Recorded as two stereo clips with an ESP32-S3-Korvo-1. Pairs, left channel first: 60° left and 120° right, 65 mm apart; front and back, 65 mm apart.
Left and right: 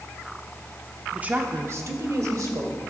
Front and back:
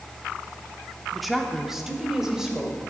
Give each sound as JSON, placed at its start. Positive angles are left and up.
{"t": 1.1, "sound": "a woman speaking", "azimuth_deg": -85, "distance_m": 0.8}